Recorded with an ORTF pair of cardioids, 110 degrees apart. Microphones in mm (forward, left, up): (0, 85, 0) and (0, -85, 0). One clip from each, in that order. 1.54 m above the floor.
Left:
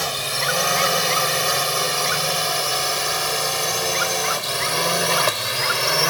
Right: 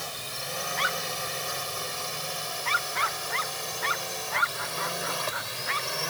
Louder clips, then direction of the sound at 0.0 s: Left 13 dB; 70° left.